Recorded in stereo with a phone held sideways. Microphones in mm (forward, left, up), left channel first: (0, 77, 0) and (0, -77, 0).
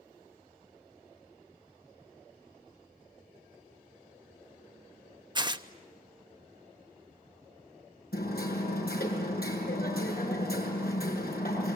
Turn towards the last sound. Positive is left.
turn(degrees=75)  # may be behind; listen again after turning